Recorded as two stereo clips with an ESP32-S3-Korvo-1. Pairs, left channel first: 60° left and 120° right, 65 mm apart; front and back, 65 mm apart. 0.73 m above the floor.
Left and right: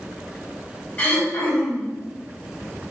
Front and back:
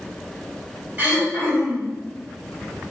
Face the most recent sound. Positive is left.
turn(degrees=120)